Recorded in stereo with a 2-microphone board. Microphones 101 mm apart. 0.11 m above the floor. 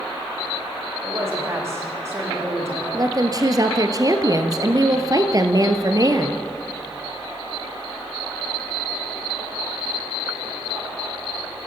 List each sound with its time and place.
1.0 s a man speaking: 25° right (ahead or behind), 6.5 m
2.9 s a woman speaking: 40° right (ahead or behind), 1.8 m